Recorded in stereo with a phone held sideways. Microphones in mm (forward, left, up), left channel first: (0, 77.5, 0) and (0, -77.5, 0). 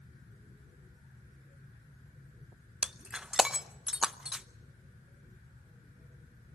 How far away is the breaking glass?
About 0.5 m.